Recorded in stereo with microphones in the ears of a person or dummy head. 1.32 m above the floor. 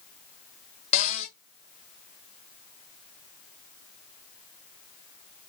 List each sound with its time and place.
0.9 s a cupboard door: 40° left (ahead or behind), 0.7 m